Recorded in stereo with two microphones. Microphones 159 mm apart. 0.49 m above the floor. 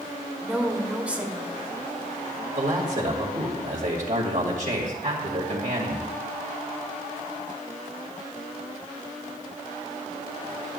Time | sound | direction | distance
0.4 | a woman speaking | 10° right (ahead or behind) | 1.4 m
2.5 | a man speaking | 60° right (ahead or behind) | 2 m